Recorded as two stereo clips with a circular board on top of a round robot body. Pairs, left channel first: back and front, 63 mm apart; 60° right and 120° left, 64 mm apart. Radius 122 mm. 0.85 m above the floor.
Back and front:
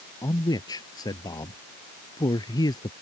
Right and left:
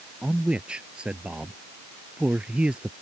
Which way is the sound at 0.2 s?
165° right.